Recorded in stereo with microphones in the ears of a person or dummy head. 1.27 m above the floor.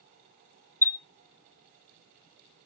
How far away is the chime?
About 0.8 m.